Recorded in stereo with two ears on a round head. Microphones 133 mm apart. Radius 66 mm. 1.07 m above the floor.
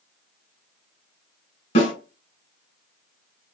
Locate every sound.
1.8 s a snare drum: 55° left (ahead or behind), 2.0 m